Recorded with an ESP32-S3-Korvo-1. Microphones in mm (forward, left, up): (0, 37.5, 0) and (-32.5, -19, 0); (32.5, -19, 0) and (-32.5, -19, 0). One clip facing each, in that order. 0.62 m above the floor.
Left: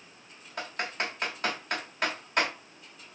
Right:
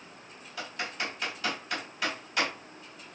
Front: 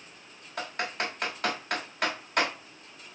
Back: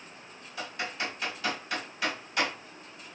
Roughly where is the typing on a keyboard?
Ahead left.